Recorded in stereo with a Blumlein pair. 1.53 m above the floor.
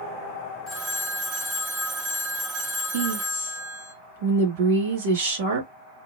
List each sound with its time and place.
0.7 s a phone ringing: 25° right, 2 m
2.9 s a woman speaking: 55° right, 3.5 m